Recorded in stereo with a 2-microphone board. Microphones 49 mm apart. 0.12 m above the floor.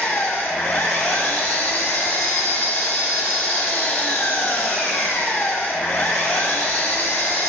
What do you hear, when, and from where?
0.0 s an engine running: 45° left (ahead or behind), 2.5 m